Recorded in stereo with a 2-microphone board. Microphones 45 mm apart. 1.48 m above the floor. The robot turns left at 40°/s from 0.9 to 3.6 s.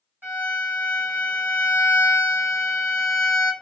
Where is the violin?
85° right, 1.9 m; by 3.5 s 170° left, 1.9 m.